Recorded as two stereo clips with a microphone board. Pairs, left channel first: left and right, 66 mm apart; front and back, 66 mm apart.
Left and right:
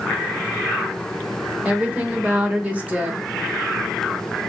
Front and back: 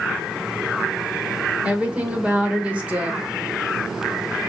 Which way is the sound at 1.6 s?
130° right.